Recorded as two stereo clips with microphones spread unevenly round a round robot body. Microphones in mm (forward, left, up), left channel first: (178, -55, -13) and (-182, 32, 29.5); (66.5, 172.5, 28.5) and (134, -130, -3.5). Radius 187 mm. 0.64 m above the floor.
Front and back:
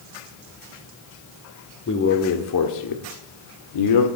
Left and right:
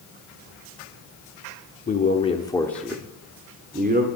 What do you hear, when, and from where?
1.9 s a man speaking: 40° left, 1.7 m; by 4.1 s 25° right, 1.7 m